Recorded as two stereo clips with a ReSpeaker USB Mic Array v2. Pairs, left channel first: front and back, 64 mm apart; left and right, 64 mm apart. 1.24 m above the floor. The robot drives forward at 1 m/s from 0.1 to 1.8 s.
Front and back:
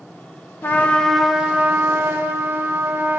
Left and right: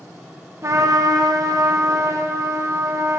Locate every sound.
0.6 s a trumpet: 55° right, 1.1 m; by 3.2 s 125° right, 1.1 m